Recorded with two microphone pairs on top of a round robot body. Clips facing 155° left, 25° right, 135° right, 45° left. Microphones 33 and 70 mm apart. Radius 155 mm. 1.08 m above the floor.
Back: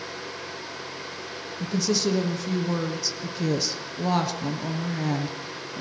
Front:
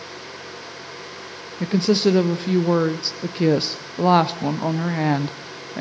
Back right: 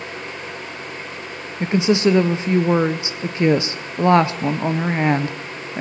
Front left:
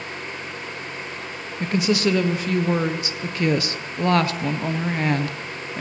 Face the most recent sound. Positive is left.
turn(degrees=-70)